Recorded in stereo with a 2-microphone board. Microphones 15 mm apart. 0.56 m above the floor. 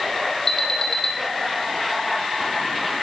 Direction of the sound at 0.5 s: 40° left (ahead or behind).